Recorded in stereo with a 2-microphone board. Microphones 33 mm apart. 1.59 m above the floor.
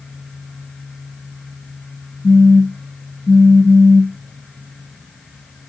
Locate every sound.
2.2 s a phone buzzing: 15° right (ahead or behind), 0.6 m